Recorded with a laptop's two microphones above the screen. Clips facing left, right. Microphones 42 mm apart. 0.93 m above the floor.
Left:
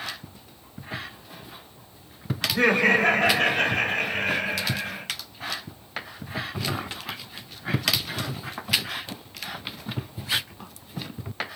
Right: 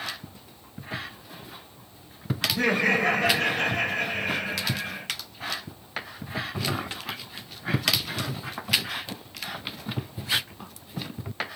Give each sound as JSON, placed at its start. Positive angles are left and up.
{"t": 2.5, "sound": "laughter", "side_deg": 55, "distance_m": 3.0}